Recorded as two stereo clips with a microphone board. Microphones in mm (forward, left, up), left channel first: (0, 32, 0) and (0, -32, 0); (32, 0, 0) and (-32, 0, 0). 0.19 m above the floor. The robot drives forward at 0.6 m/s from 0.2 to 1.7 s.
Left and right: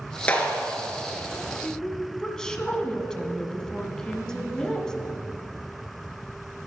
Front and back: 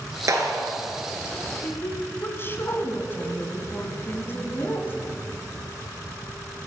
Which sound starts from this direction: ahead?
A woman speaking, at 1.6 s.